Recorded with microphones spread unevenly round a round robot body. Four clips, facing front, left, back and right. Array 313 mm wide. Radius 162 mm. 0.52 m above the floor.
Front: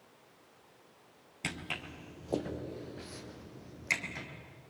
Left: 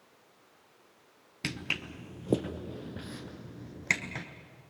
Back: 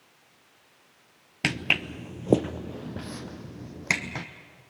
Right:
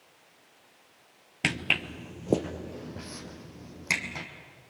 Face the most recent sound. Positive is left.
turn(degrees=180)